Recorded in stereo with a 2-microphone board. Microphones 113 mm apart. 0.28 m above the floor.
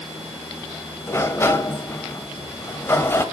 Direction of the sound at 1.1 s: 25° left (ahead or behind).